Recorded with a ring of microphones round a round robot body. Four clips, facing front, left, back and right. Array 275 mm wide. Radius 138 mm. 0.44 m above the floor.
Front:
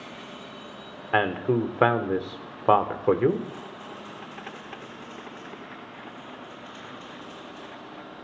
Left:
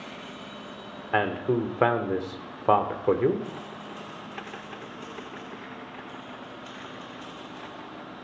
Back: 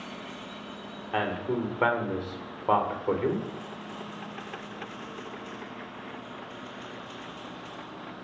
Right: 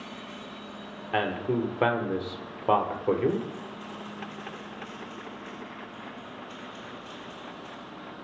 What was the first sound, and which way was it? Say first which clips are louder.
A man speaking: left 2 dB, front 5 dB; 20° left.